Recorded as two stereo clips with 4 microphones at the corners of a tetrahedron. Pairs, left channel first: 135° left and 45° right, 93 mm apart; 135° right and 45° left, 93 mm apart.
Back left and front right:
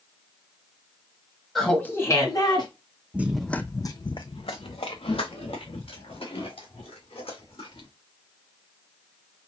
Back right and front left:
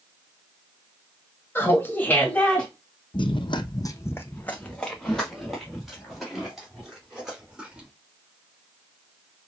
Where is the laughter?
140° right, 1.4 m; by 2.7 s 150° left, 2 m.